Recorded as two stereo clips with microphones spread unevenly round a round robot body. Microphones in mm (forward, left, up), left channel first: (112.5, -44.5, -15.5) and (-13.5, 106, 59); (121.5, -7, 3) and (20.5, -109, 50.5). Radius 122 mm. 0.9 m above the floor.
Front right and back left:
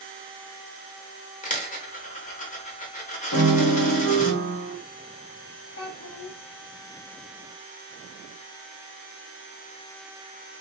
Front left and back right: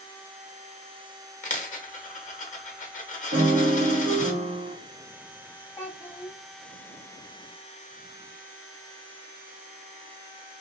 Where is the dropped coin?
5° left, 0.9 m.